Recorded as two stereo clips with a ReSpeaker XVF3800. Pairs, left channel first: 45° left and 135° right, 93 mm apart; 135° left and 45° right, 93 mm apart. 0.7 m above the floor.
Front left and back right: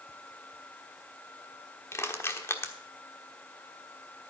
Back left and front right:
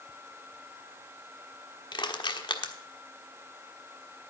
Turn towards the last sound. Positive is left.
turn(degrees=105)